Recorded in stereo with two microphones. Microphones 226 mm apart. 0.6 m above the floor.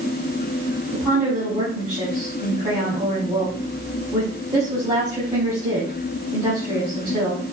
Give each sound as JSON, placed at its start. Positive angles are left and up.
{"t": 0.9, "sound": "a woman speaking", "side_deg": -25, "distance_m": 4.5}